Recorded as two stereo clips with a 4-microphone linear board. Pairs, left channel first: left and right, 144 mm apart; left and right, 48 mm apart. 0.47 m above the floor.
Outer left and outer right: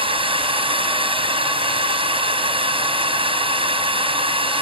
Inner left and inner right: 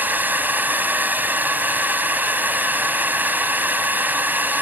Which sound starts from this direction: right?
A drone, at 0.0 s.